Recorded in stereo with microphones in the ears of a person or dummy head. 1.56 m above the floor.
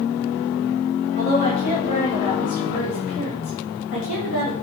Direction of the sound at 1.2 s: 30° left (ahead or behind).